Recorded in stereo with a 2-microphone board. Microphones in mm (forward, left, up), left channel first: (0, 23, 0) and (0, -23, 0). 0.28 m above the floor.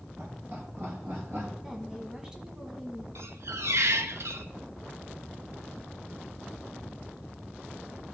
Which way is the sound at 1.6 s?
10° right (ahead or behind).